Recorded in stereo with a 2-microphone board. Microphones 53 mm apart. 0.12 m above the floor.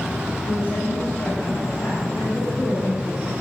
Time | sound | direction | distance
0.5 | a woman speaking | 55° left (ahead or behind) | 8 m